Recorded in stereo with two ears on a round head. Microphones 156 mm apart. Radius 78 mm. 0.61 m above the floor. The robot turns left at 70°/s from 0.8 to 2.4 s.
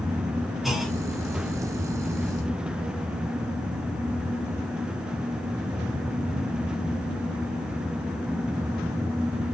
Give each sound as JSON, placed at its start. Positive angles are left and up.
{"t": 0.6, "sound": "a clunk", "side_deg": 0, "distance_m": 3.0}